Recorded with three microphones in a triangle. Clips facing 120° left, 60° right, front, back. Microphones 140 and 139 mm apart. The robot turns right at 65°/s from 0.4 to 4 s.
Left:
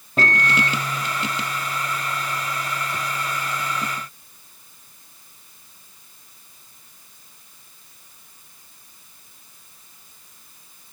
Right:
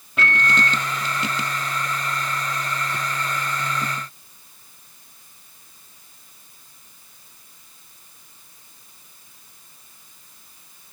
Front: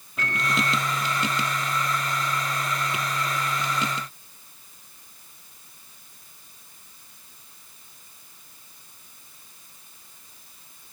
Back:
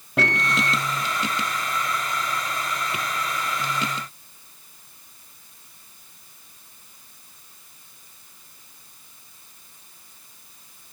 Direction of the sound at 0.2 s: 170° left.